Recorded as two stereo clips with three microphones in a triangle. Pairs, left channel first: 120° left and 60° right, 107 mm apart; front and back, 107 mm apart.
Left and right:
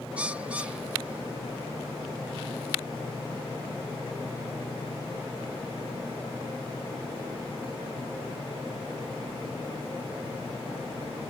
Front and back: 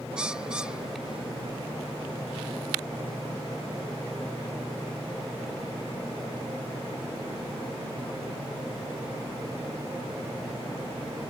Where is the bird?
115° right.